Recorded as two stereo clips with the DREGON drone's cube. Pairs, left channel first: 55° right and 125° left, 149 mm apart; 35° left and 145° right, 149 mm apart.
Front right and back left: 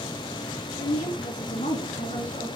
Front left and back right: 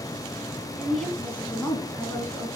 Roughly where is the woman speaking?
Ahead right.